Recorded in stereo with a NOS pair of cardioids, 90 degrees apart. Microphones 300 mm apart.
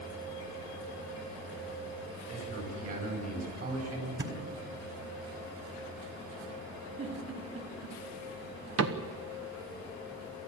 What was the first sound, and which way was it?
A man speaking, 50° right.